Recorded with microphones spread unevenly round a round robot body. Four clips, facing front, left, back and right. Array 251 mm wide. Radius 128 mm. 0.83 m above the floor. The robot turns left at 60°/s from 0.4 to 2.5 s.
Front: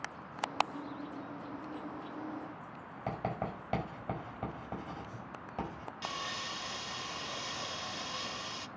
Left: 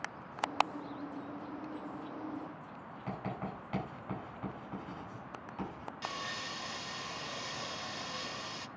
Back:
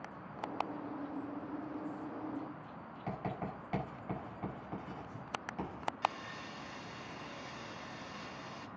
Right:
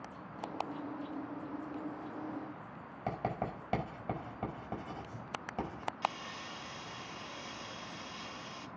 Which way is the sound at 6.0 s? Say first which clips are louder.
Right 1 dB, even; 35° left.